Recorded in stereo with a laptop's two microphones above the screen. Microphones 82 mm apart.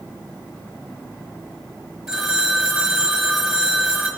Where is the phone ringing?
Centre (ahead or behind), 4 m.